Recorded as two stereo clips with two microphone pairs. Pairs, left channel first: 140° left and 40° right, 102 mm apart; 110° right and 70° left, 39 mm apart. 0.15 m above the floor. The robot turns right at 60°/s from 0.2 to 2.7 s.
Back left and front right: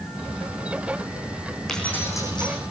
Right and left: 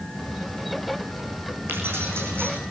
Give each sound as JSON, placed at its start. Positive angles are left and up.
{"t": 1.7, "sound": "keys jangling", "azimuth_deg": 50, "distance_m": 6.0}